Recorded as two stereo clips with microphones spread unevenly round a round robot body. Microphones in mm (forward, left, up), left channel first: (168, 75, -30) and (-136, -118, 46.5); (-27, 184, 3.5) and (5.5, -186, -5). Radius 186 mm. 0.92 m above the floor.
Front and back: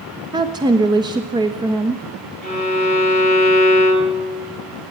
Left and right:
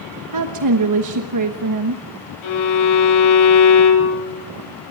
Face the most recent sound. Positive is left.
turn(degrees=100)